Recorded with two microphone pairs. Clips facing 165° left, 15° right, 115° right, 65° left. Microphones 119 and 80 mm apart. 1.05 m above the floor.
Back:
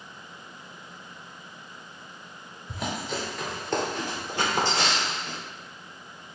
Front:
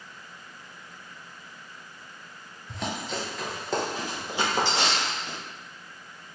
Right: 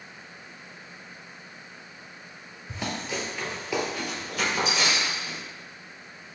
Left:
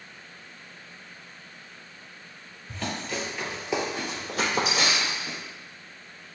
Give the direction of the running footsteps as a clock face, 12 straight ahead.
4 o'clock.